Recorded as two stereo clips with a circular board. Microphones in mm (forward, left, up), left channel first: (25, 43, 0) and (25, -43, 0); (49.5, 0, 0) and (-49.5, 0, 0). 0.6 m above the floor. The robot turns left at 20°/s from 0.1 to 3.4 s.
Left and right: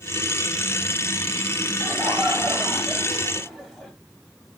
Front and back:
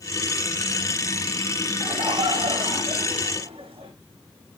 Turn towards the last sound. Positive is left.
turn(degrees=-175)